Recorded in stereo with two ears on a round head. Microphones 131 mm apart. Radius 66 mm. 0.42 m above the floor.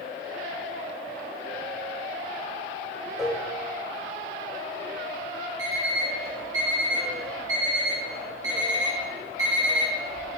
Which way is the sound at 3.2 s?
5° right (ahead or behind).